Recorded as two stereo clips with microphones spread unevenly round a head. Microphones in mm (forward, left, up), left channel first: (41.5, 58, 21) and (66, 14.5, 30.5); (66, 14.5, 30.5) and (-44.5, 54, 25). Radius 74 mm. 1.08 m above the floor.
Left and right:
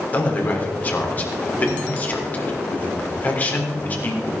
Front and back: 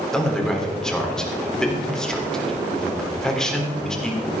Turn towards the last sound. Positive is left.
turn(degrees=65)